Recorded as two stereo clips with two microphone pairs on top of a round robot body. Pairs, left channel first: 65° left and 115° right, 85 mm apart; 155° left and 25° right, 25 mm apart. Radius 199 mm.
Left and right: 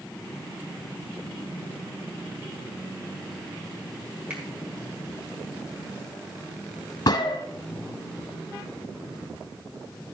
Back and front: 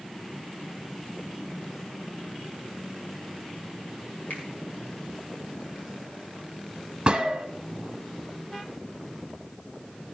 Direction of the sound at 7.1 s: 25° left.